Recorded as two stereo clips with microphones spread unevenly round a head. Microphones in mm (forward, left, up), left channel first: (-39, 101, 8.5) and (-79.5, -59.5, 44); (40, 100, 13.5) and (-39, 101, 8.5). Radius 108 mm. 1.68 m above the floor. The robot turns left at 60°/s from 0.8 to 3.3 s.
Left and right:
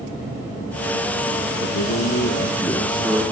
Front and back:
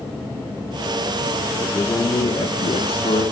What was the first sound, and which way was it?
A man speaking, 70° left.